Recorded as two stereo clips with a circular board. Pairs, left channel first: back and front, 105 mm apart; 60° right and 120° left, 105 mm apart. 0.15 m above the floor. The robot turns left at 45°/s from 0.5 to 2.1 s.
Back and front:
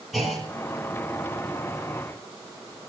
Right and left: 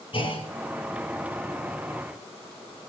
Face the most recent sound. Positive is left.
turn(degrees=-160)